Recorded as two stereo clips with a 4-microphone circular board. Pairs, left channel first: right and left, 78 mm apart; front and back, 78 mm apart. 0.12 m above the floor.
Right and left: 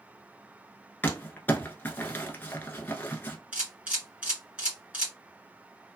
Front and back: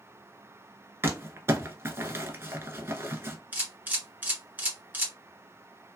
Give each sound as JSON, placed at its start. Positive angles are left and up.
{"t": 1.0, "sound": "crumpling", "azimuth_deg": -140, "distance_m": 0.7}
{"t": 3.5, "sound": "a camera shutter", "azimuth_deg": 145, "distance_m": 1.9}